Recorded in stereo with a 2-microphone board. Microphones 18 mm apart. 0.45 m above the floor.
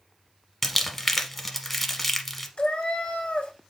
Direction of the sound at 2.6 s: 80° left.